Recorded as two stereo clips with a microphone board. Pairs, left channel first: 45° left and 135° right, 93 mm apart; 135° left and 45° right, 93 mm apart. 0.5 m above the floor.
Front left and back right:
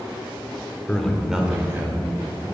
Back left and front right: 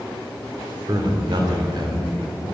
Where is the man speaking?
25° right, 1.1 m; by 2.4 s 75° right, 2.5 m.